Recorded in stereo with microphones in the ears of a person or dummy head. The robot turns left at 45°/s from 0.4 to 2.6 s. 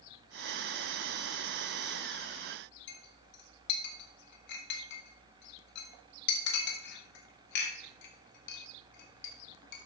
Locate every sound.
2.9 s a clink: 60° left (ahead or behind), 1.3 m